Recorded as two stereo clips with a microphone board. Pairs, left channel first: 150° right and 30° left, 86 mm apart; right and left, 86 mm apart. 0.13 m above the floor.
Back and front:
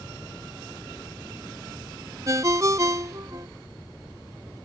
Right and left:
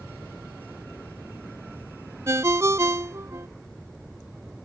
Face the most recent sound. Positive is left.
turn(degrees=55)